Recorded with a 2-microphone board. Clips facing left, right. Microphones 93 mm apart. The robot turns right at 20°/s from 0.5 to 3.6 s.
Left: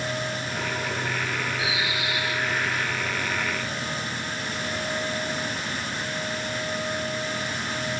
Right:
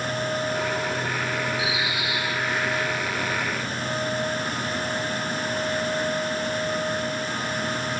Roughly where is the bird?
Centre.